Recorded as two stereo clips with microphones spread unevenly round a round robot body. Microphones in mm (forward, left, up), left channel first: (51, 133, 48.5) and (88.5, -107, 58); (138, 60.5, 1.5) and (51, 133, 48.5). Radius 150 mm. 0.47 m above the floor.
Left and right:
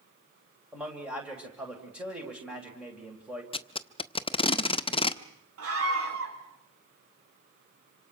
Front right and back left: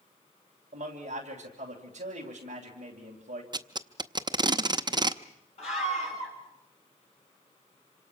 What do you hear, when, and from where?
0.7 s a man speaking: 170° right, 2.5 m
3.5 s tape being pulled: 80° left, 0.8 m
5.6 s a scream: 55° right, 5 m